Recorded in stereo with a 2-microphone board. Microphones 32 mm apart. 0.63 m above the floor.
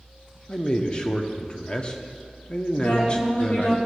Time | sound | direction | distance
0.5 | a man speaking | 25° left (ahead or behind) | 0.8 m
2.8 | a woman speaking | 70° left (ahead or behind) | 3 m